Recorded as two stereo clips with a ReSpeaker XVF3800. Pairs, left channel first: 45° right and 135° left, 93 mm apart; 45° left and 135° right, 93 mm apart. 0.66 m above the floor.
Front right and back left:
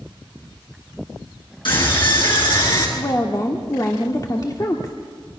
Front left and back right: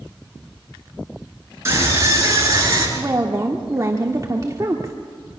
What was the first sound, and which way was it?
A scream, 75° right.